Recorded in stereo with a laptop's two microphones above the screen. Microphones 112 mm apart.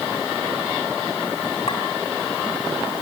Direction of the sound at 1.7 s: 65° left (ahead or behind).